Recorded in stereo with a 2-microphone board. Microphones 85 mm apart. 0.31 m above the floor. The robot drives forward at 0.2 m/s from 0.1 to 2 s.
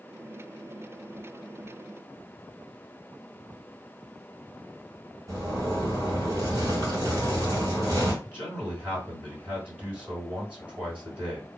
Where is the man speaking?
15° right (ahead or behind), 3 m.